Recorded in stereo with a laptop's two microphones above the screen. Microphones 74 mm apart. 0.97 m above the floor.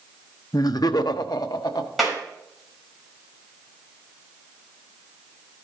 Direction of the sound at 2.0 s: Centre (ahead or behind).